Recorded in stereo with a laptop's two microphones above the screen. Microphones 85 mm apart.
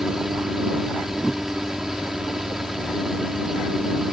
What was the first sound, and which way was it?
A fan, 5° right (ahead or behind).